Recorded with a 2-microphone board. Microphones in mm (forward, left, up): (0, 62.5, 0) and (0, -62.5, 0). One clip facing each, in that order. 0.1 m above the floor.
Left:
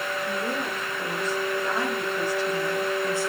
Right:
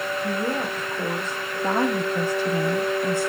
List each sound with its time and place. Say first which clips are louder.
0.2 s a woman speaking: right 4 dB; 50° right (ahead or behind), 6.5 m; by 3.3 s 60° right (ahead or behind), 3.5 m